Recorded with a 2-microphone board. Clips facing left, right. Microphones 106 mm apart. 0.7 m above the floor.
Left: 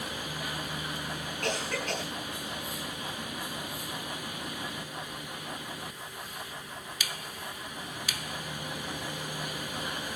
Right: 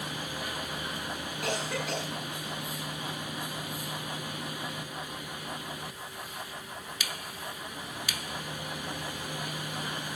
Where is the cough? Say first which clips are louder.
Even; 5° right (ahead or behind), 7 m.